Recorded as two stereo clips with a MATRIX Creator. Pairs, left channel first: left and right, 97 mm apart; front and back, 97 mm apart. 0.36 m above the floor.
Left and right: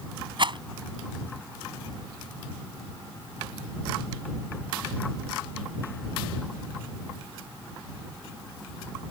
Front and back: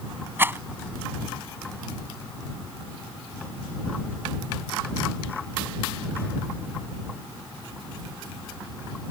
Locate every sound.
0.4 s a rattle: 115° right